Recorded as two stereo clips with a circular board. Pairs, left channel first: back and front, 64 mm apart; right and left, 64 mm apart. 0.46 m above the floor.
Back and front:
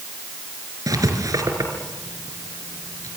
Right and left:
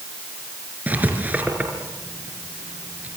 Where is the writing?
25° left, 4.5 m.